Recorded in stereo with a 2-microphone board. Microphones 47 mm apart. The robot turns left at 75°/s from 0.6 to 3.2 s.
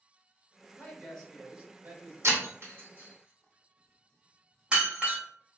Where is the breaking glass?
80° right, 1.5 m; by 5.2 s 25° right (ahead or behind), 1.5 m.